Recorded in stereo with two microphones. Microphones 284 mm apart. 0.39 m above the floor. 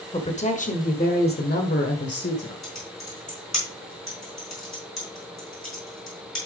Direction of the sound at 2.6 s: 70° left (ahead or behind).